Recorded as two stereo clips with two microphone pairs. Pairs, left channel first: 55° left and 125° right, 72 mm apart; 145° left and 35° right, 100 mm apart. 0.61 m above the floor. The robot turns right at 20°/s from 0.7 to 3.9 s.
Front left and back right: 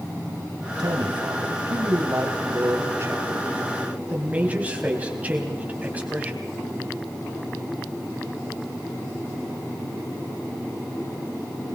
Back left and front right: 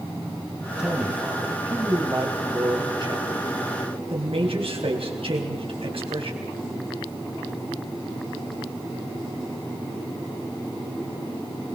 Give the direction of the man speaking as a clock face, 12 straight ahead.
4 o'clock.